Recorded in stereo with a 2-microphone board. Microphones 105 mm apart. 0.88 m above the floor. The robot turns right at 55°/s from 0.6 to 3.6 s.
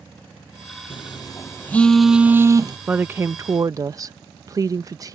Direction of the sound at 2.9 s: 155° right.